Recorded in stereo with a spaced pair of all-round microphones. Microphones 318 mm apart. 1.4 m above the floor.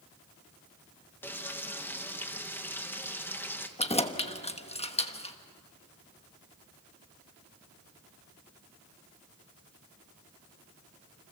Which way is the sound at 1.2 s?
5° left (ahead or behind).